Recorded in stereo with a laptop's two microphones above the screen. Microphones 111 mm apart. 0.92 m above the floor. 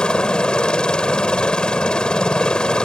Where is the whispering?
No whispering in this recording.